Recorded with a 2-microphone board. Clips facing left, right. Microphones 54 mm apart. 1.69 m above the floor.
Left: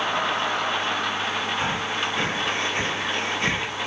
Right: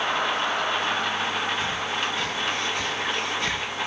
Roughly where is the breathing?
Left.